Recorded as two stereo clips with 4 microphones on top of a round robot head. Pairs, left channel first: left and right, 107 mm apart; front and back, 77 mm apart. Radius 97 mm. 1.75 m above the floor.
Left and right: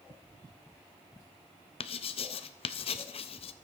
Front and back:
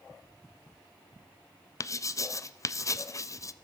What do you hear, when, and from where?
1.8 s writing: 50° left, 0.6 m